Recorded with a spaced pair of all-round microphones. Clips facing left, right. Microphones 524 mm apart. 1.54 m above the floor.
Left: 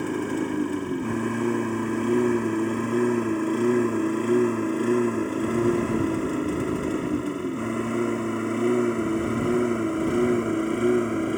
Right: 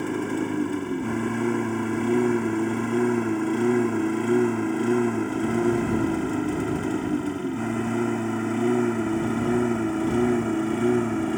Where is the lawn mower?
Centre (ahead or behind); by 11.4 s 15° right (ahead or behind).